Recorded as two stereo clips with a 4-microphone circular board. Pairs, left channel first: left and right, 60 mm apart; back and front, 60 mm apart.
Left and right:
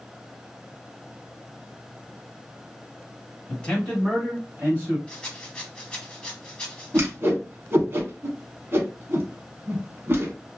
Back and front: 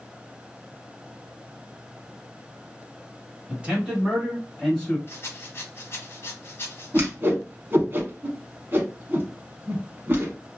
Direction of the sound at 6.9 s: 50° right.